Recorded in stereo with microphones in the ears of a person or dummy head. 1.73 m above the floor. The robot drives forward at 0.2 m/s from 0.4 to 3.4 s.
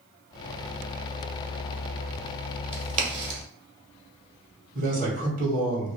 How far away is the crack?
About 1.3 m.